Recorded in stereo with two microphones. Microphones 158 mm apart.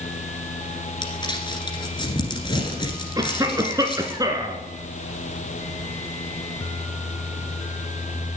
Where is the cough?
25° right (ahead or behind), 1.3 m.